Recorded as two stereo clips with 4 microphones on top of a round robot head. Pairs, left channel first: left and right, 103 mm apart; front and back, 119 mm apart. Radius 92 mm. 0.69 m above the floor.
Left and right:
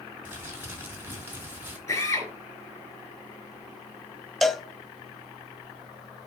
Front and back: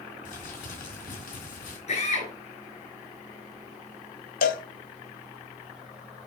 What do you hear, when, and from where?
0.2 s crumpling: 20° right, 3 m
1.9 s a drill: 25° left, 5.5 m
4.4 s a cowbell: straight ahead, 0.7 m